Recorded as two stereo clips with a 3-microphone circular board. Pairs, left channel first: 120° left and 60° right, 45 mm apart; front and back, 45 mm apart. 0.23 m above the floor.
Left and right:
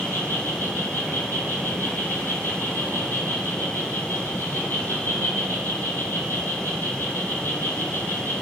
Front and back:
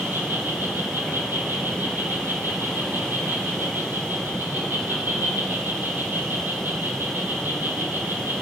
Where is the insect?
145° left, 0.9 m.